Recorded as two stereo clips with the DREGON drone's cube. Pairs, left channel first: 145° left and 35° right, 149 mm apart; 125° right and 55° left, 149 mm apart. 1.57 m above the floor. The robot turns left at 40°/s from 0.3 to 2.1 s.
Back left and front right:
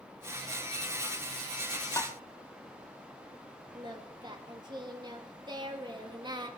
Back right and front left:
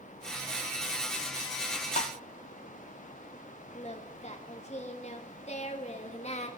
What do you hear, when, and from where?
2.0 s tapping: 150° right, 0.8 m; by 2.2 s 155° right, 0.8 m
3.7 s singing: 90° right, 1.5 m